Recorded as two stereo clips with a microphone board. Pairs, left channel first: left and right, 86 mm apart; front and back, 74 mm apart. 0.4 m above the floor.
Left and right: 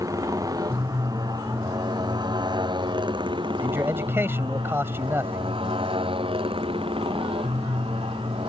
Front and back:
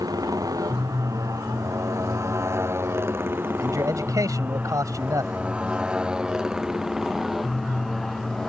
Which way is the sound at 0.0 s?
140° right.